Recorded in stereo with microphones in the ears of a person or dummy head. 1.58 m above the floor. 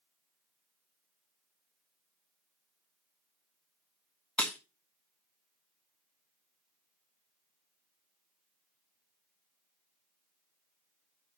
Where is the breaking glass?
10° left (ahead or behind), 1.4 m.